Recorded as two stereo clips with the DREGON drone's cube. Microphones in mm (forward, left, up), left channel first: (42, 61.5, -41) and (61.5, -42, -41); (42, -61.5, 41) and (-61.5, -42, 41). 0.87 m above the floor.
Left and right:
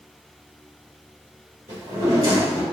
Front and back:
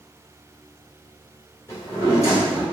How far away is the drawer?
About 1.9 m.